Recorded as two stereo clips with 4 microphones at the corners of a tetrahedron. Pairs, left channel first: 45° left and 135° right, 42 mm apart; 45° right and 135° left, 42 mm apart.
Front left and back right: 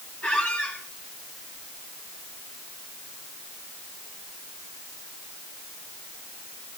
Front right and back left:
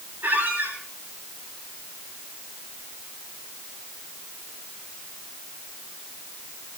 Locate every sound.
0.2 s a squeak: 95° left, 6.5 m